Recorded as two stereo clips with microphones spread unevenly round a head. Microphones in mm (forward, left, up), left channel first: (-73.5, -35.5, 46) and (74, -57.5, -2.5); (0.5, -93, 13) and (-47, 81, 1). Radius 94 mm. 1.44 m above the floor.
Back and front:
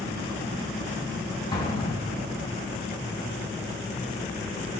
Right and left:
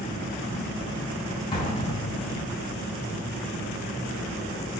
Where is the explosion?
135° right, 4 m.